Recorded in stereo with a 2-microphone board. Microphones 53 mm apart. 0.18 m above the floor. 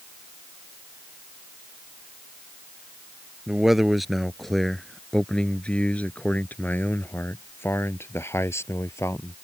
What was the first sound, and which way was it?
A man speaking, 10° right (ahead or behind).